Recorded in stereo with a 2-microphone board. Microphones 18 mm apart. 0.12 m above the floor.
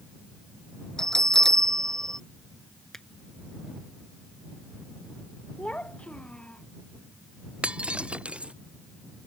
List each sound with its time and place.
1.0 s a bell: 35° left (ahead or behind)
2.9 s a finger snap: 20° left (ahead or behind)
5.6 s a child speaking: 70° left (ahead or behind)
7.6 s breaking glass: 80° right